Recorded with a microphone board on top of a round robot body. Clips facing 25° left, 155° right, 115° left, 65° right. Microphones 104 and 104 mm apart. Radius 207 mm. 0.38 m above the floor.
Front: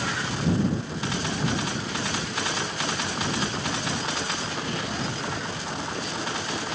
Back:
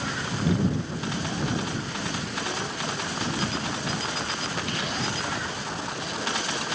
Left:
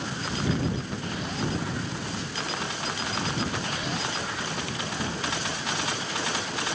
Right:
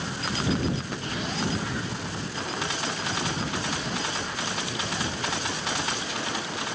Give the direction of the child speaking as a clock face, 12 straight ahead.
5 o'clock.